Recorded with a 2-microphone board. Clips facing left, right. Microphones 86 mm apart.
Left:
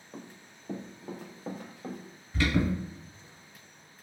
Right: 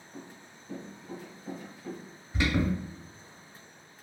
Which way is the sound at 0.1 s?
65° left (ahead or behind).